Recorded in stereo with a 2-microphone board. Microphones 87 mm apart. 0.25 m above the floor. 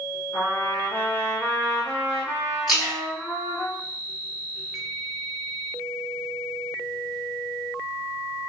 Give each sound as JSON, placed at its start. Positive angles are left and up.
{"t": 0.3, "sound": "a trumpet", "side_deg": 30, "distance_m": 1.2}
{"t": 2.7, "sound": "a splash", "side_deg": -5, "distance_m": 1.9}